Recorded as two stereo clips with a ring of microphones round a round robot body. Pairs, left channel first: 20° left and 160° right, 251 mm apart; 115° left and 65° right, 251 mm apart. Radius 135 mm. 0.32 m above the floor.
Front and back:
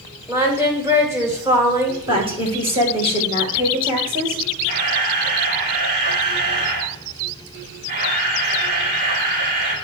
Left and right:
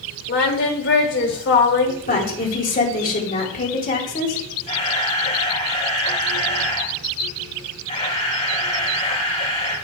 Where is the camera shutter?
175° left, 4 m.